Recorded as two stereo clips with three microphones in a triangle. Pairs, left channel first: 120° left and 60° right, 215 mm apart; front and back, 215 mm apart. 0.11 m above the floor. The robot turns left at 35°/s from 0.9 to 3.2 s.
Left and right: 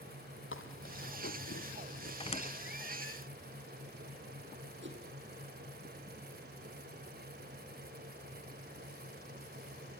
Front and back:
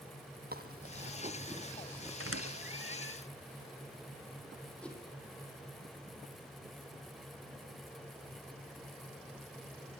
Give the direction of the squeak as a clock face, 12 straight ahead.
6 o'clock.